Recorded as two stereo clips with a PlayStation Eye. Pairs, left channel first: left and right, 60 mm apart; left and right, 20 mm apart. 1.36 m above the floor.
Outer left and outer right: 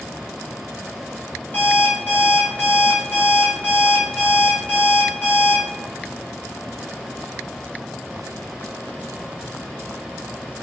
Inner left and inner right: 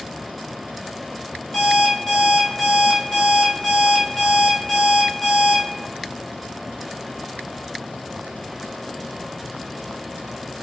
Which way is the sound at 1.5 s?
30° left (ahead or behind).